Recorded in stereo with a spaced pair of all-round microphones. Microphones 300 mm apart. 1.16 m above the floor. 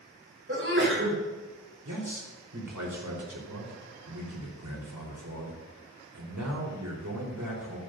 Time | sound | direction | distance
0.5 | a sneeze | 45° right (ahead or behind) | 4 m
1.9 | a man speaking | 85° right | 4 m